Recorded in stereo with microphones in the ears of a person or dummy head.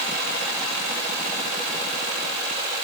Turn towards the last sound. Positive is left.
No sound to turn to.